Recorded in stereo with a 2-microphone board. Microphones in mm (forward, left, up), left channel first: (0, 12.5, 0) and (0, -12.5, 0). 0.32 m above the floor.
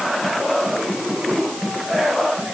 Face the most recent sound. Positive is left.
No sound to turn to.